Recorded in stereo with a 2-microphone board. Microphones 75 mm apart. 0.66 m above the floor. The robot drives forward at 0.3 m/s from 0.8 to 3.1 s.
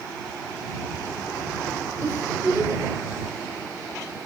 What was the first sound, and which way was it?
A giggle, 30° right (ahead or behind).